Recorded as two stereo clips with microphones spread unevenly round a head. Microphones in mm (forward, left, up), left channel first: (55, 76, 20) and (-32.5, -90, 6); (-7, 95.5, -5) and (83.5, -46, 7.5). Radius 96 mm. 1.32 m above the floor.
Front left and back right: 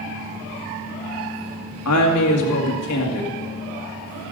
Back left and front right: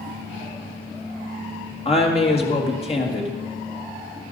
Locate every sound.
1.9 s a woman speaking: 65° left, 1.9 m